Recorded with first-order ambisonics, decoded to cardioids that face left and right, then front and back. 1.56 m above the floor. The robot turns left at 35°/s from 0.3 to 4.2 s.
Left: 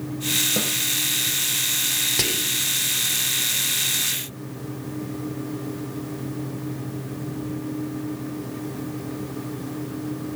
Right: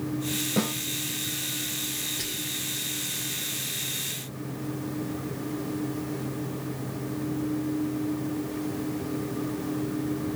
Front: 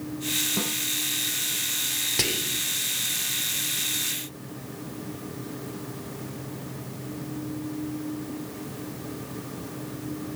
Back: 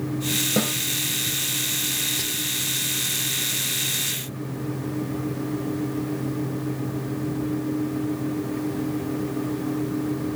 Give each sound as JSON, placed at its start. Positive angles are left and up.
{"t": 0.6, "sound": "a snare drum", "azimuth_deg": 170, "distance_m": 3.5}
{"t": 2.2, "sound": "whispering", "azimuth_deg": 60, "distance_m": 0.6}